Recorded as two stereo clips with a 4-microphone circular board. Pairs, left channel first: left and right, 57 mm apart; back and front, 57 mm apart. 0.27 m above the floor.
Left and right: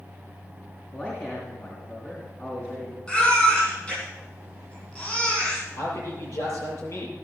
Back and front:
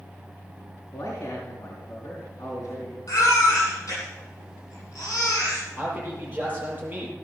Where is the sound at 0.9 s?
145° left, 4 m.